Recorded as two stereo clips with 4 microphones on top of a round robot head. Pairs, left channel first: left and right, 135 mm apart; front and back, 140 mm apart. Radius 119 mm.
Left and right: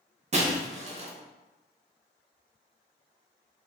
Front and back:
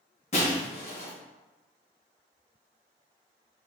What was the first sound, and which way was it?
Breaking glass, 50° right.